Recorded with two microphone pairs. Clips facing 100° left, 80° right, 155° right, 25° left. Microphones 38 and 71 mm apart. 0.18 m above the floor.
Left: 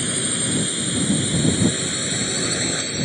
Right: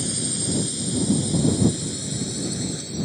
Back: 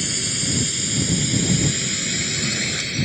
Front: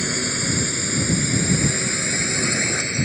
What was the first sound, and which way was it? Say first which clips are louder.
A drone: left 4 dB, front 4 dB; 65° left.